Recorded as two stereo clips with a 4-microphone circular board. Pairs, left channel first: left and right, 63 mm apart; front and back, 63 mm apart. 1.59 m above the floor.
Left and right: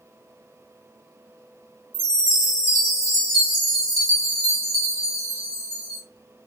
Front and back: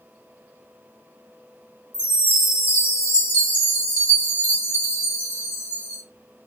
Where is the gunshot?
No gunshot in this recording.